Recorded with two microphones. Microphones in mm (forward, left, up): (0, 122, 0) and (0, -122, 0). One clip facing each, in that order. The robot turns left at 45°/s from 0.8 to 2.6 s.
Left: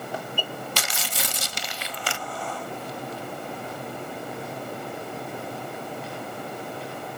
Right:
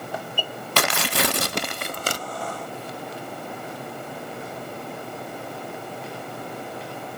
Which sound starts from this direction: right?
Tearing paper, at 0.8 s.